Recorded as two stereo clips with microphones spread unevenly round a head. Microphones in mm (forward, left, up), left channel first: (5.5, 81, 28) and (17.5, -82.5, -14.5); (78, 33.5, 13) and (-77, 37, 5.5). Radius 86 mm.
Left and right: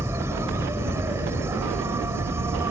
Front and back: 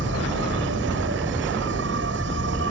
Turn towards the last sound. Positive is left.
turn(degrees=-165)